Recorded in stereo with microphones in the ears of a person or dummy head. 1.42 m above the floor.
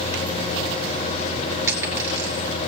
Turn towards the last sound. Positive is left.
turn(degrees=-15)  # may be behind; listen again after turning